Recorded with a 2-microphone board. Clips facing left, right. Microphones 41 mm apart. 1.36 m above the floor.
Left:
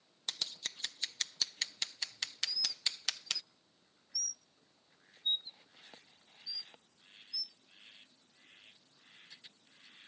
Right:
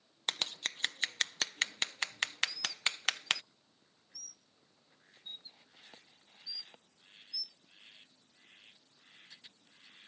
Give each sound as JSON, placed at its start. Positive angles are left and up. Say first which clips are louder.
{"t": 0.3, "sound": "scissors", "louder": "right 5 dB", "side_deg": -50}
{"t": 2.5, "sound": "a bird", "louder": "right 4 dB", "side_deg": 75}